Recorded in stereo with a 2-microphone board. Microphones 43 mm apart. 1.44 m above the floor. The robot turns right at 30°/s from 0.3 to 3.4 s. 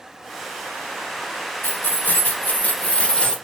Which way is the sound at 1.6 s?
105° left.